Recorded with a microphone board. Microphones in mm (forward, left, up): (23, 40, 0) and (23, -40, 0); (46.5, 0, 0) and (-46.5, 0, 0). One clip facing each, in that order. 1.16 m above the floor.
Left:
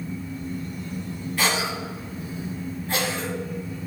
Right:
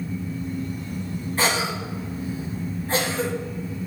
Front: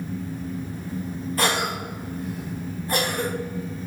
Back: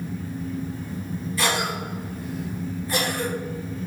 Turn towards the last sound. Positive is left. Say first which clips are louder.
# right 1 dB, front 1 dB
turn(degrees=-35)